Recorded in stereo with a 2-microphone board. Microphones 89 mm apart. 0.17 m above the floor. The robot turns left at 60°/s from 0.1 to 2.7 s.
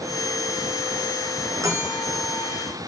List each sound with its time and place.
1.6 s a bell: 35° right, 2.5 m; by 2.6 s 95° right, 2.5 m